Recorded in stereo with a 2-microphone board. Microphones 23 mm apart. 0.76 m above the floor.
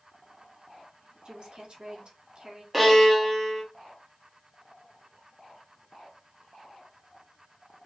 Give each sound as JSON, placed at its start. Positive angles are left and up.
{"t": 1.2, "sound": "a woman speaking", "side_deg": -45, "distance_m": 1.4}
{"t": 2.7, "sound": "a violin", "side_deg": -5, "distance_m": 1.3}